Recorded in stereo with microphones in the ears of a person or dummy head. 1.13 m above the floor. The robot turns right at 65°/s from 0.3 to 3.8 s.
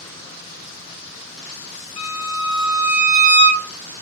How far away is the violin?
About 0.7 m.